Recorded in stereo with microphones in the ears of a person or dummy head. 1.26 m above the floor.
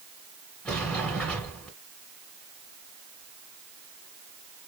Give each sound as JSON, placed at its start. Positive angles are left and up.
{"t": 0.7, "sound": "a sliding door", "side_deg": 5, "distance_m": 1.5}